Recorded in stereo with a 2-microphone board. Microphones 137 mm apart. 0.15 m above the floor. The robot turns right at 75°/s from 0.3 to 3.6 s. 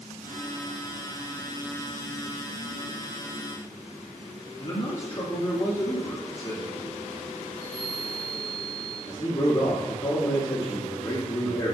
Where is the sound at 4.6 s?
30° left (ahead or behind), 1.2 m.